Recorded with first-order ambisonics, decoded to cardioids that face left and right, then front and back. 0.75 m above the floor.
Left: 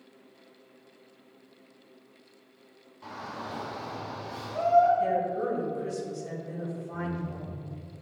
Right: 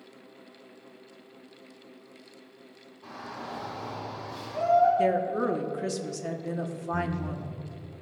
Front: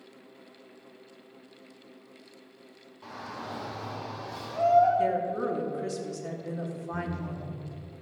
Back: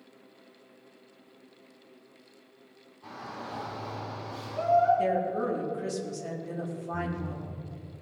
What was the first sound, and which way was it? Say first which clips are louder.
A shout: left 1 dB, front 1 dB; 50° left.